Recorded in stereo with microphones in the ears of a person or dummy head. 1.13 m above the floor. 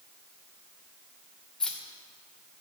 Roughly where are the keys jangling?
Centre.